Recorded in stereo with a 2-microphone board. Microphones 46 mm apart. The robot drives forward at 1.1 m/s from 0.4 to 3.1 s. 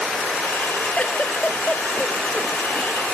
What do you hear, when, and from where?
1.0 s a giggle: 35° left (ahead or behind); by 3.0 s 20° left (ahead or behind)